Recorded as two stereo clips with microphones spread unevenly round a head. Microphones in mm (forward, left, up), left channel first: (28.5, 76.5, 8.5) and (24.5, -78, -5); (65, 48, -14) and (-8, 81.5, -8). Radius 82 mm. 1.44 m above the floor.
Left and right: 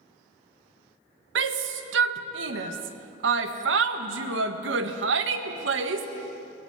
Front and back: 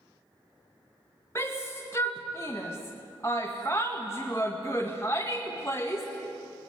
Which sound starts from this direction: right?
A shout, at 1.4 s.